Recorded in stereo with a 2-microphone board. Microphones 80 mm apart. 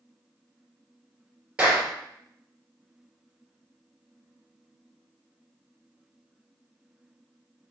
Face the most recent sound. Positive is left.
turn(degrees=-15)  # may be behind; listen again after turning